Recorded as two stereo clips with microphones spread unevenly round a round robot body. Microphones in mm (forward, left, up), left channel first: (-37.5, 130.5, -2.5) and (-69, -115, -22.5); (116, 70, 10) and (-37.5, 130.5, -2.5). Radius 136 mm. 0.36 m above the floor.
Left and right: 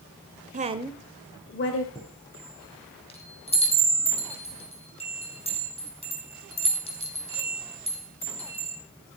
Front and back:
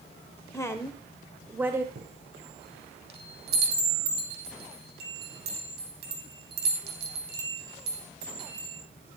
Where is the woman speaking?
90° right, 1.1 m; by 1.9 s 90° left, 1.4 m.